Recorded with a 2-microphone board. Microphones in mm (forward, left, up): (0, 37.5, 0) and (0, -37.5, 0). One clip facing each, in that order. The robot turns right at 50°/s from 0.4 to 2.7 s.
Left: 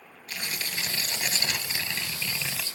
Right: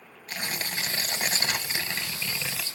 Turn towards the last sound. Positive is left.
turn(degrees=0)